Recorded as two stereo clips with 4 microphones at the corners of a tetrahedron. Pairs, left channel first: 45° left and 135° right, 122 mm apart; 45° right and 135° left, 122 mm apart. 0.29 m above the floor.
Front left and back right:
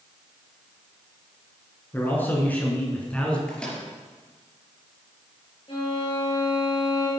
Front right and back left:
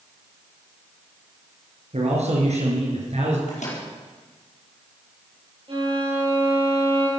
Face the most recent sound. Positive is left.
turn(degrees=90)